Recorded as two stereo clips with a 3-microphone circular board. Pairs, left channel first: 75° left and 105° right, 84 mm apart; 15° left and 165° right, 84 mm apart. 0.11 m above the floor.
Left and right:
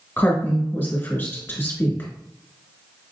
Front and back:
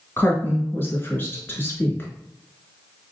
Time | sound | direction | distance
0.2 | a woman speaking | 45° left | 1.3 m